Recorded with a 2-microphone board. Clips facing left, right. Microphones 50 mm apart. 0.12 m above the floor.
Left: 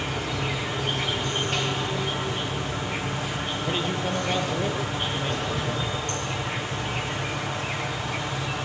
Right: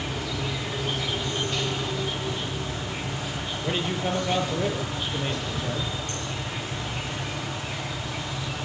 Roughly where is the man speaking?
Centre.